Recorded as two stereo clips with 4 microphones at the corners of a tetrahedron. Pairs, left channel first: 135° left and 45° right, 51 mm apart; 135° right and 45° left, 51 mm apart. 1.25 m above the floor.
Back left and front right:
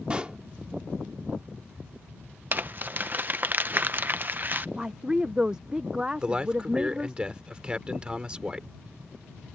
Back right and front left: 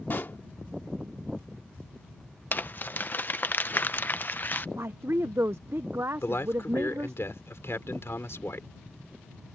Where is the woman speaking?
25° left.